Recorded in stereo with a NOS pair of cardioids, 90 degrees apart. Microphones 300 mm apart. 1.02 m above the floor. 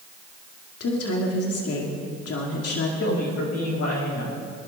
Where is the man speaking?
55° left, 6.5 m.